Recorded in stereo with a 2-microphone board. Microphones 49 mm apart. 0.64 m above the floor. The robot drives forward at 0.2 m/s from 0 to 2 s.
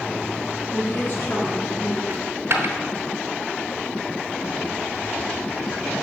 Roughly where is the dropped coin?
Right.